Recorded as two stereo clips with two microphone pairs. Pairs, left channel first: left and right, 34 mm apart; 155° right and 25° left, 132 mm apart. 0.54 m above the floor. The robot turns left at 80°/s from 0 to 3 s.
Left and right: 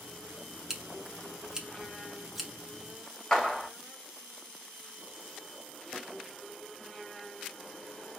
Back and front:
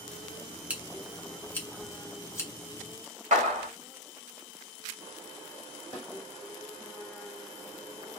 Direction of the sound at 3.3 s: 25° left.